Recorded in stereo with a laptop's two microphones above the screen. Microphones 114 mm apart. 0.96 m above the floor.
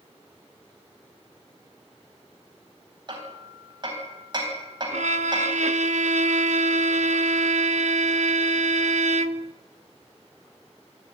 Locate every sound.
3.1 s hammering: 40° right (ahead or behind), 4.5 m
4.9 s a violin: 75° right (ahead or behind), 0.8 m